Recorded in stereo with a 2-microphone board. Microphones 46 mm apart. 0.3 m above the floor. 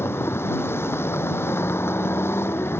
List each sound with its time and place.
0.0 s a vehicle: 70° left (ahead or behind)